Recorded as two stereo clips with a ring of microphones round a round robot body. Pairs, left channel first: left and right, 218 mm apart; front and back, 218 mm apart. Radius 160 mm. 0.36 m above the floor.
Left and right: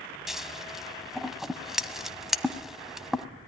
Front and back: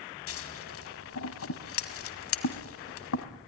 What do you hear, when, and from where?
0.3 s scissors: straight ahead, 1.6 m